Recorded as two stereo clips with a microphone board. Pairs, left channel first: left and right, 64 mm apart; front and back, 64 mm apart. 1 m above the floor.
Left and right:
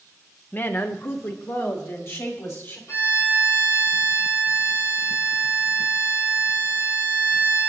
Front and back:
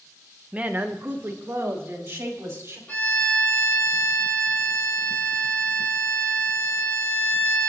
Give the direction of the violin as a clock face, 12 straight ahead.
10 o'clock.